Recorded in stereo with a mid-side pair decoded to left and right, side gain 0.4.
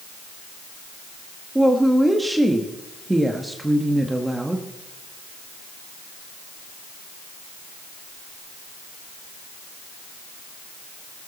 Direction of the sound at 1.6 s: 10° right.